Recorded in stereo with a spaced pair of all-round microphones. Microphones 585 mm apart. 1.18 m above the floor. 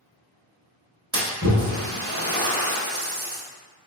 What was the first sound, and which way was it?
A splash, 25° right (ahead or behind).